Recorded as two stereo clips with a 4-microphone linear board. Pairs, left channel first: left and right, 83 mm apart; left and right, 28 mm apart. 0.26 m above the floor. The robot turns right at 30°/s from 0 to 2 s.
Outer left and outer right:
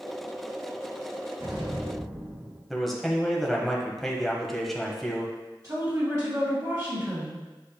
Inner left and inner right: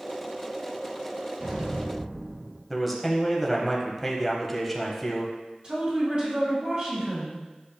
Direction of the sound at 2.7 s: Centre (ahead or behind).